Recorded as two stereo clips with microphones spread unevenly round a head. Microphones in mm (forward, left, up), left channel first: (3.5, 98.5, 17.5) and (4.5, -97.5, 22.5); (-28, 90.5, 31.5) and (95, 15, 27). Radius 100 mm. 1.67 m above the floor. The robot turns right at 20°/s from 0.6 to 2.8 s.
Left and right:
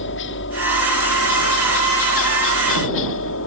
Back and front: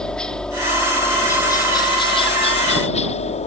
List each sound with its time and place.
0.0 s a helicopter: 65° left; by 3.5 s 110° left